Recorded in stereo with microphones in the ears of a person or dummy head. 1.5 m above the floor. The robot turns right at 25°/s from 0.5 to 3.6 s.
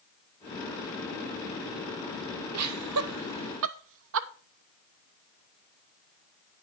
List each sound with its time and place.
2.5 s laughter: 85° right, 0.9 m; by 4.3 s 70° right (ahead or behind), 0.9 m